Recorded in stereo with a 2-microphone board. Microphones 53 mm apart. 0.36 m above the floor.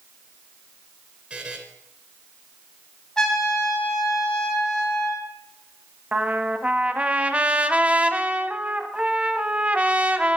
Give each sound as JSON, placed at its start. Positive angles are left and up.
{"t": 1.3, "sound": "a buzzer", "side_deg": -25, "distance_m": 3.0}
{"t": 3.2, "sound": "a trumpet", "side_deg": 10, "distance_m": 3.0}
{"t": 6.1, "sound": "a trumpet", "side_deg": -25, "distance_m": 1.0}